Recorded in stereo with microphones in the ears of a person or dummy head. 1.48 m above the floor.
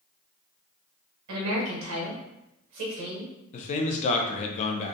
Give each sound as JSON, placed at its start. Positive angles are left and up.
{"t": 1.3, "sound": "a woman speaking", "side_deg": -80, "distance_m": 0.8}
{"t": 3.5, "sound": "a man speaking", "side_deg": 40, "distance_m": 0.5}